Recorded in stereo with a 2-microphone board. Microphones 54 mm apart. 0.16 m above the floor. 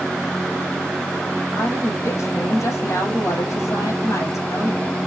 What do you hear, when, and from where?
1.6 s a woman speaking: 65° left (ahead or behind), 5.5 m